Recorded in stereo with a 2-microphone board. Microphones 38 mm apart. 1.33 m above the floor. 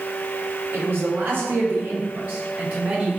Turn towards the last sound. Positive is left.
turn(degrees=-45)  # may be behind; listen again after turning